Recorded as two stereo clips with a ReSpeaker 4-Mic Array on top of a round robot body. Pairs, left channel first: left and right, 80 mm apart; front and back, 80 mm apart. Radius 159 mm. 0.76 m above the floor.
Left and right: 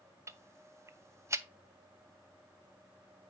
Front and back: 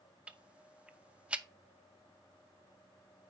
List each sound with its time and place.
0.3 s ticking: 115° right, 0.7 m